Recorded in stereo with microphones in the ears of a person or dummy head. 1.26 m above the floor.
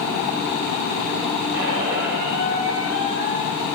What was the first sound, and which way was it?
A squeak, 65° right (ahead or behind).